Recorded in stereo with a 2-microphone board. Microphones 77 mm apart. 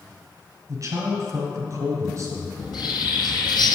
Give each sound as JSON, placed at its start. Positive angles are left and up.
{"t": 0.7, "sound": "a man speaking", "side_deg": -45, "distance_m": 1.4}
{"t": 2.6, "sound": "a bird", "side_deg": 70, "distance_m": 0.8}